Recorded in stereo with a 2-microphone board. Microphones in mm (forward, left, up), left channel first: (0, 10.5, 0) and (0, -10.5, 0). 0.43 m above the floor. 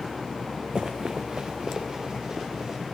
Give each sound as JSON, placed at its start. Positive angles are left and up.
{"t": 0.8, "sound": "running footsteps", "side_deg": -50, "distance_m": 1.5}